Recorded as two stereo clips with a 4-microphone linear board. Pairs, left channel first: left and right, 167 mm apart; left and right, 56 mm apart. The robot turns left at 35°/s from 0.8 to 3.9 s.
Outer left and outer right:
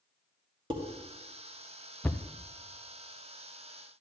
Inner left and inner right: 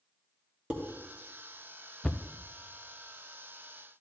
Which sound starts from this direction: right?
Dishes clattering, at 0.7 s.